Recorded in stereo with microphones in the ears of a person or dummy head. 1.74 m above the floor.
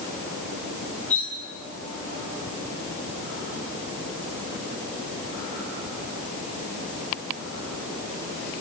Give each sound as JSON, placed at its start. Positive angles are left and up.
{"t": 1.1, "sound": "cutlery clinking", "side_deg": 10, "distance_m": 6.5}